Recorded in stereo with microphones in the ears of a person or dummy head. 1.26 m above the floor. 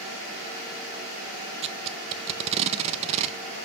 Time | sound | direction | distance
1.6 | tape being pulled | 35° right (ahead or behind) | 0.7 m